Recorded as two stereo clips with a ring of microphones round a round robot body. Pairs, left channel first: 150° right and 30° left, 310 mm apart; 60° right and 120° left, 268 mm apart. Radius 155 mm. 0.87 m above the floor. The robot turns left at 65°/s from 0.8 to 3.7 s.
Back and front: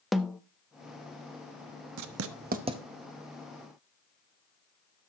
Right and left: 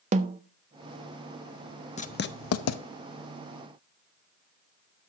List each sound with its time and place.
0.1 s a snare drum: 120° left, 0.5 m
2.0 s writing: 5° left, 0.8 m; by 2.8 s 50° right, 0.8 m